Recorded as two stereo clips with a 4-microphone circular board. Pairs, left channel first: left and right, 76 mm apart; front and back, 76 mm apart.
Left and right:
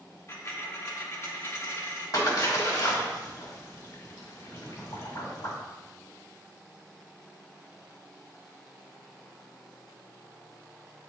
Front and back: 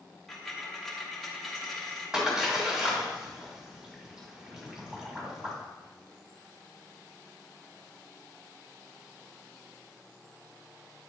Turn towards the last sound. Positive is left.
turn(degrees=100)